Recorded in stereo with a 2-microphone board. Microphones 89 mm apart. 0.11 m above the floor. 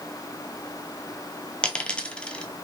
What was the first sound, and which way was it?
A dropped coin, 15° left (ahead or behind).